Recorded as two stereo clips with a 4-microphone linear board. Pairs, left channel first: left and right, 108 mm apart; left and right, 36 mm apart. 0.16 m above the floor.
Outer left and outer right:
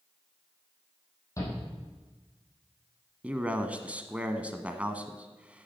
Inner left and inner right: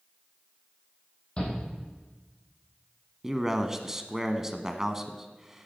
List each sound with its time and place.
1.4 s a shout: 30° left (ahead or behind), 7 m
3.2 s a man speaking: 15° right (ahead or behind), 1.0 m